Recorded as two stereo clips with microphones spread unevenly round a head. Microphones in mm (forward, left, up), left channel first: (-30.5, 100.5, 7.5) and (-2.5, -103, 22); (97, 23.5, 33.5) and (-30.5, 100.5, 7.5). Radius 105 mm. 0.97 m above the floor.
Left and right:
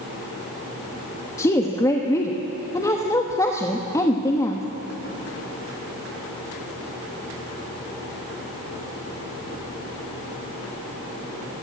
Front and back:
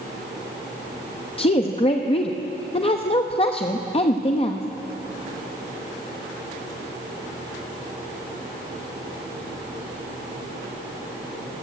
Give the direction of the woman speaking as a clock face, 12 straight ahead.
11 o'clock.